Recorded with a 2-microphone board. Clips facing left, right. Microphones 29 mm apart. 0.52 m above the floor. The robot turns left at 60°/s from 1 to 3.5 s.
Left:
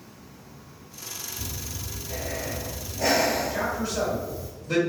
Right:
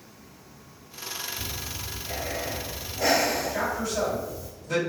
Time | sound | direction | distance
1.4 | breathing | 70° right | 0.8 m
3.5 | a man speaking | 20° left (ahead or behind) | 1.8 m